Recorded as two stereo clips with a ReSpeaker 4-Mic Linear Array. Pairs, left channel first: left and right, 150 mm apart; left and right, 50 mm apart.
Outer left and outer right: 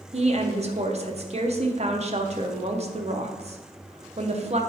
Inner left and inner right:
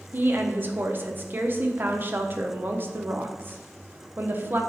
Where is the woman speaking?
45° right (ahead or behind), 0.8 m.